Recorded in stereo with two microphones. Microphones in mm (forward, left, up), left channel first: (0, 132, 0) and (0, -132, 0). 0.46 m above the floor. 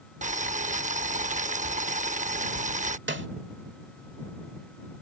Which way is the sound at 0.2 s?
30° right (ahead or behind).